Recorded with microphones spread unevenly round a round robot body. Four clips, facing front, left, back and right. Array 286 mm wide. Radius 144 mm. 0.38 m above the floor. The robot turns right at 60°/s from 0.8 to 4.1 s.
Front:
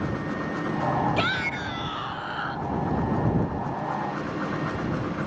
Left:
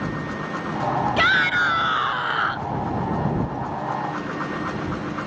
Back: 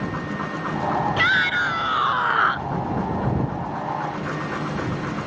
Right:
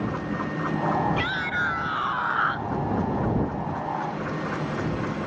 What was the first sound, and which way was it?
A shout, 85° left.